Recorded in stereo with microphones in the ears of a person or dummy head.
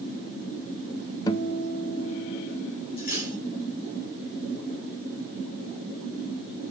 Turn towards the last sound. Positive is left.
turn(degrees=45)  # may be behind; listen again after turning